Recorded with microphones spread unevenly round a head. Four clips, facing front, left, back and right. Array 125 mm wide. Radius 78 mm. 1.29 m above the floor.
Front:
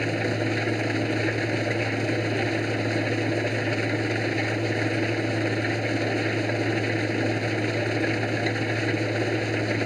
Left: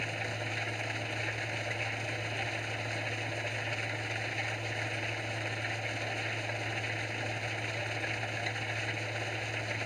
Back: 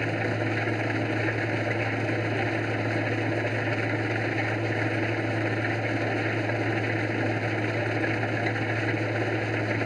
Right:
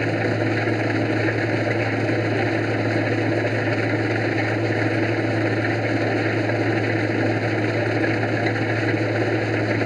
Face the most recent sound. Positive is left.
turn(degrees=-70)